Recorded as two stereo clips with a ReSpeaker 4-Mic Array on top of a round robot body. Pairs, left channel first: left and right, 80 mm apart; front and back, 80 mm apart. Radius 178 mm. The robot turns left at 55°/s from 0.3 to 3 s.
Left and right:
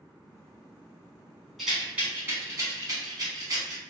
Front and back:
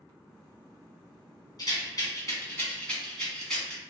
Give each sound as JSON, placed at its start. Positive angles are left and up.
{"t": 1.6, "sound": "a rattle", "azimuth_deg": 0, "distance_m": 1.7}